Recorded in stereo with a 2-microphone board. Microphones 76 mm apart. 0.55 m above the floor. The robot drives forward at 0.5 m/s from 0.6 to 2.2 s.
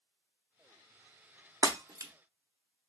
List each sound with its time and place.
1.6 s breaking glass: 50° right (ahead or behind), 0.8 m; by 2.1 s 45° right (ahead or behind), 1.0 m